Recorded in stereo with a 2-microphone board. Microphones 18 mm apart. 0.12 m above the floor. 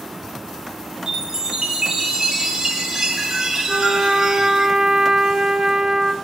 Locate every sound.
1.1 s a chime: 35° right (ahead or behind), 3 m
3.7 s a trumpet: 30° right (ahead or behind), 0.9 m